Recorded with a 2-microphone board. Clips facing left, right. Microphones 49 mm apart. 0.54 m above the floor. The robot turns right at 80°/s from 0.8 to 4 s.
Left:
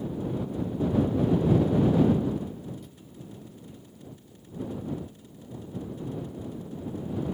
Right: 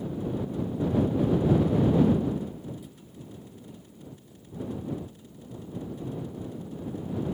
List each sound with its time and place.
Only background noise.